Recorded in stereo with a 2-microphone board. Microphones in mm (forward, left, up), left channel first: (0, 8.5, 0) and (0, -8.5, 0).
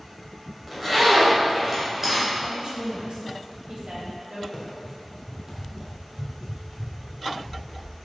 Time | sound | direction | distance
0.7 | a zipper | 15° right (ahead or behind) | 3 m
2.4 | a woman speaking | 80° right | 2.5 m
4.5 | running footsteps | 10° left (ahead or behind) | 2.5 m